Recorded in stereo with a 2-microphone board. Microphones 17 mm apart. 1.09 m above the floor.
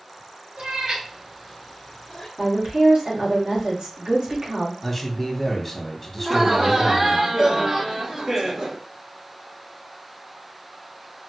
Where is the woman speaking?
65° right (ahead or behind), 2 m.